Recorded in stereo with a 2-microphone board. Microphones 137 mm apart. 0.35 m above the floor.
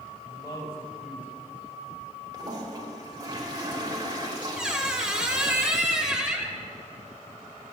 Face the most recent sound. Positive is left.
turn(degrees=-5)  # may be behind; listen again after turning